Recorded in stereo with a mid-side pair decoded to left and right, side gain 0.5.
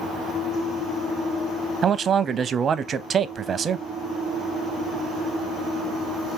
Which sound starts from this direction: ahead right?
A man speaking, at 1.8 s.